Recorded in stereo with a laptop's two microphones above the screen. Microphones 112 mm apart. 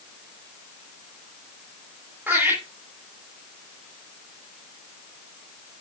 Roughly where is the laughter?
Centre.